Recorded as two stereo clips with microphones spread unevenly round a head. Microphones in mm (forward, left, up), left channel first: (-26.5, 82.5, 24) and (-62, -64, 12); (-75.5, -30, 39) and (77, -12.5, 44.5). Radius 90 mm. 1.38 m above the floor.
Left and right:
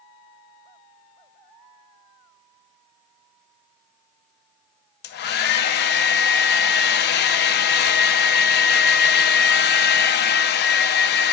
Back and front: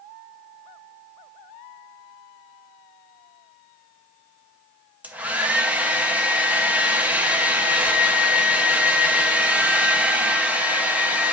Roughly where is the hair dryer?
Left.